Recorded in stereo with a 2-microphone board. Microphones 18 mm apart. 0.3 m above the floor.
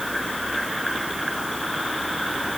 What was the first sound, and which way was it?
Only background noise.